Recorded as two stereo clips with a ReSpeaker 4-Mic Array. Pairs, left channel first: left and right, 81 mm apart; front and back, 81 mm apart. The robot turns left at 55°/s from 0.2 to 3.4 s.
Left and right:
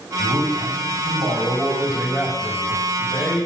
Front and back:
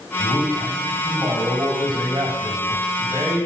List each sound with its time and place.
0.2 s a man speaking: 65° right, 5 m; by 3.5 s 120° left, 5 m